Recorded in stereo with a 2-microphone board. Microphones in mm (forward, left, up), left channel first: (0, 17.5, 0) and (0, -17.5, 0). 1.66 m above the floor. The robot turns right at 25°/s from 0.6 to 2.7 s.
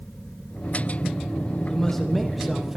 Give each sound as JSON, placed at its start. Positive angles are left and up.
{"t": 1.7, "sound": "a man speaking", "side_deg": 15, "distance_m": 1.5}